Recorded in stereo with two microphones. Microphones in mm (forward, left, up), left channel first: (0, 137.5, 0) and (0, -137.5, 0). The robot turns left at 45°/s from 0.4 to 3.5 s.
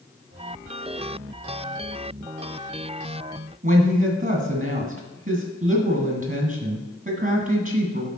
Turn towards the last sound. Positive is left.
turn(degrees=-30)  # may be behind; listen again after turning